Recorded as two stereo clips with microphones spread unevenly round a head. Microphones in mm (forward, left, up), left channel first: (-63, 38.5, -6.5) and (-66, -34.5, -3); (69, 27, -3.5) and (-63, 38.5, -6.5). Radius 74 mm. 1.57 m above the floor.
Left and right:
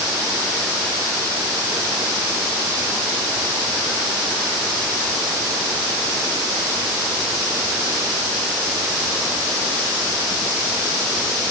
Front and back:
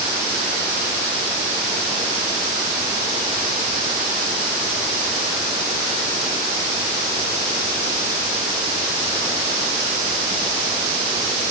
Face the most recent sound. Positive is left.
No sound to turn to.